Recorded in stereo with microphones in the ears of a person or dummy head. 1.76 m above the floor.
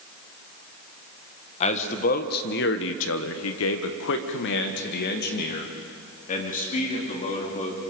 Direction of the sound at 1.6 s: 40° left (ahead or behind).